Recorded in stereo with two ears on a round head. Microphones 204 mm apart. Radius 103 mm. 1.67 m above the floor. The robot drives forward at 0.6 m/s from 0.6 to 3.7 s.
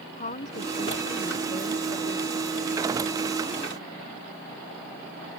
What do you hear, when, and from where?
0.2 s a woman speaking: 40° left (ahead or behind); by 2.4 s 25° left (ahead or behind)